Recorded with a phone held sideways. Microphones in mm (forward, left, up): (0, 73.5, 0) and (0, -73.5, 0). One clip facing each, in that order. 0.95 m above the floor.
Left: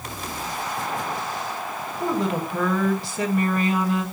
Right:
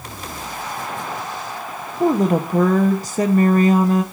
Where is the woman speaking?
40° right (ahead or behind), 1.0 m.